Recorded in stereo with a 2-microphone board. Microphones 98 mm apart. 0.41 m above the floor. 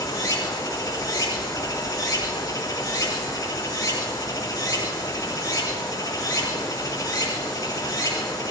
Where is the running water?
40° left (ahead or behind), 3.5 m.